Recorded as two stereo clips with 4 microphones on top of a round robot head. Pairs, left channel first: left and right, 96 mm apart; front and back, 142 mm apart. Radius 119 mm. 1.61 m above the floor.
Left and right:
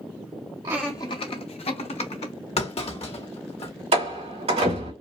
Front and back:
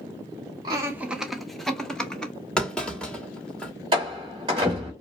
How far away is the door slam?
About 2.5 m.